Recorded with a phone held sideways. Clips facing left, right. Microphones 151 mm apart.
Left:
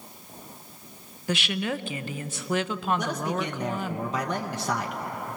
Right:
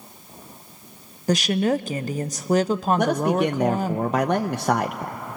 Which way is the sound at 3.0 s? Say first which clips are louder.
Right 9 dB; 55° right (ahead or behind).